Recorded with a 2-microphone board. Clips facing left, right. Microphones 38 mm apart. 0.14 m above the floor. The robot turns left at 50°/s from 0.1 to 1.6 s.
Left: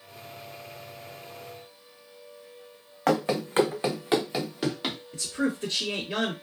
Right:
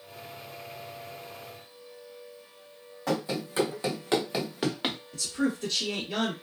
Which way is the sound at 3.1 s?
70° left (ahead or behind).